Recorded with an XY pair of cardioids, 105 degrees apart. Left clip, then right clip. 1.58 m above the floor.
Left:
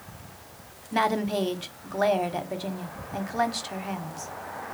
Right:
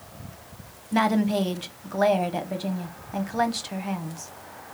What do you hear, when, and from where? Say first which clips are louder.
0.9 s a woman speaking: right 1 dB; 5° right, 0.8 m